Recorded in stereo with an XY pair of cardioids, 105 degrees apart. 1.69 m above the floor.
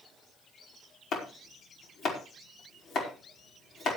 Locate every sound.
1.1 s chopping: 60° left, 5 m